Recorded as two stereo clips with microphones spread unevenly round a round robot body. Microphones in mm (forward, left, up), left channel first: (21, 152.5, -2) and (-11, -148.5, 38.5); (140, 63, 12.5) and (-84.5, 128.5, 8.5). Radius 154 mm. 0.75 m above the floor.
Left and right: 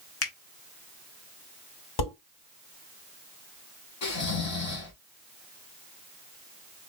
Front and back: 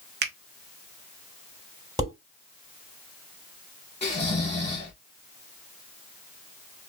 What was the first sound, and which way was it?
A finger snap, 120° left.